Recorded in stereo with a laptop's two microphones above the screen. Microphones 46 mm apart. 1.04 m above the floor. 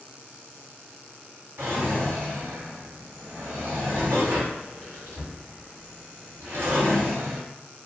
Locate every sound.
1.6 s a drawer: 70° right (ahead or behind), 1.9 m